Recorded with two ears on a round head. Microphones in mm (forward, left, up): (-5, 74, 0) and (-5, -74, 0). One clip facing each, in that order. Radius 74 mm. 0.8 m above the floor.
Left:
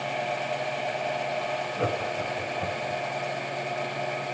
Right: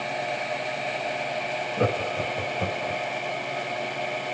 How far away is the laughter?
About 3.5 m.